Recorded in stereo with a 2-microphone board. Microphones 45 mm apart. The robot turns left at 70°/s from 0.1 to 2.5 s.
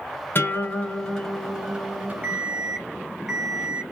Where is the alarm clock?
35° right (ahead or behind), 0.9 m; by 3.8 s 20° right (ahead or behind), 0.9 m.